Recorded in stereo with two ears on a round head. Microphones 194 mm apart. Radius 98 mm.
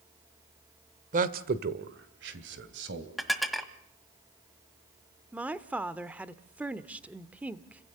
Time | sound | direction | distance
1.1 | a man speaking | 40° right (ahead or behind) | 1.4 m
3.2 | dishes clattering | centre (ahead or behind) | 1.6 m
5.3 | a woman speaking | 5° right (ahead or behind) | 0.9 m